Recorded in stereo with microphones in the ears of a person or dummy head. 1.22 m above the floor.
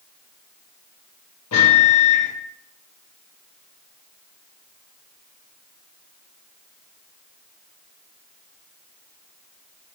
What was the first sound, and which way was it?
A microwave, 80° left.